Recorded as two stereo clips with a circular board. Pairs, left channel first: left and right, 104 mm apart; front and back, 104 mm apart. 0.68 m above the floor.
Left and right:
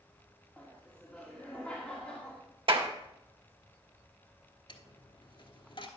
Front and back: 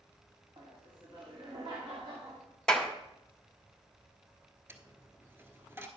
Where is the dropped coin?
115° left, 1.2 m.